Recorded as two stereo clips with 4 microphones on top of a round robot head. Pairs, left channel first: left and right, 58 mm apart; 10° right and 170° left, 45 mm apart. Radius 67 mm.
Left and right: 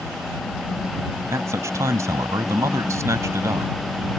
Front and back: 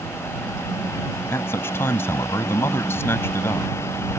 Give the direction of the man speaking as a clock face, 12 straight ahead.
2 o'clock.